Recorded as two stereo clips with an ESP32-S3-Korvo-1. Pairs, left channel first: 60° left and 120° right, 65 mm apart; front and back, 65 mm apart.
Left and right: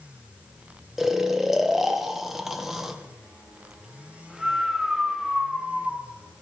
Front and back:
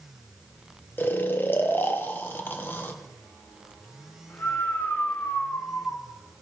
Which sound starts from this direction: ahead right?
Snoring, at 1.0 s.